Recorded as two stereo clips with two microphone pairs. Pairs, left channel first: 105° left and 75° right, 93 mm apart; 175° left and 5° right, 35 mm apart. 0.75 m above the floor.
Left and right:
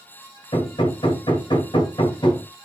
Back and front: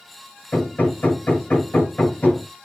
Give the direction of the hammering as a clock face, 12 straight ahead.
8 o'clock.